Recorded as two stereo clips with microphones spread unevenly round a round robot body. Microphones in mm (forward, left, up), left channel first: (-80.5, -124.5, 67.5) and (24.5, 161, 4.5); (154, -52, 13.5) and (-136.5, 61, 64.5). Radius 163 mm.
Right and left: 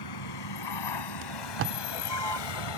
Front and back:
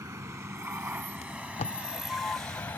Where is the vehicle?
120° right; by 2.8 s 105° right.